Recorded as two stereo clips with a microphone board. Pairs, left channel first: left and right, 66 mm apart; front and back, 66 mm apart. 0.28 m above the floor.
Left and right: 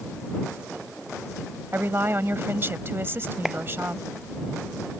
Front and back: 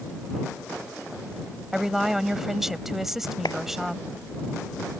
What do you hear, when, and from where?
1.7 s a woman speaking: 100° right
3.5 s a clap: 5° right